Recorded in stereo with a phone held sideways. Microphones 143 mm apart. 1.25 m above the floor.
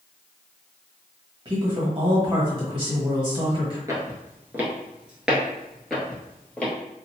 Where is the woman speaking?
35° right (ahead or behind), 1.3 m.